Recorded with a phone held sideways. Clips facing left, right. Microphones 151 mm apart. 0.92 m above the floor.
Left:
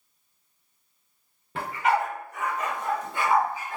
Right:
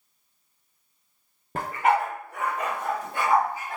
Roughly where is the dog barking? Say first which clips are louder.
Right 2 dB; right.